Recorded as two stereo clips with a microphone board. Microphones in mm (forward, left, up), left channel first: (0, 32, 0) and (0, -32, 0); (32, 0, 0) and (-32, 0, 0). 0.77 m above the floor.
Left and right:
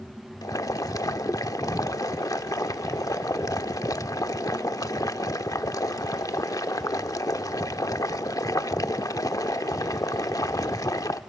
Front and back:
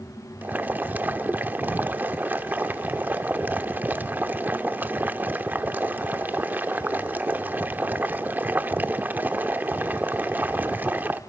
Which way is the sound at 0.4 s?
115° left.